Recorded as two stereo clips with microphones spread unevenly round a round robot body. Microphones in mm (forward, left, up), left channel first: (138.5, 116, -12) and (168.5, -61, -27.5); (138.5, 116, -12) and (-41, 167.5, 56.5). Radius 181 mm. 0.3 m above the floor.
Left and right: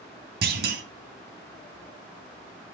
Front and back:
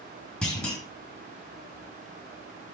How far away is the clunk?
About 1.2 m.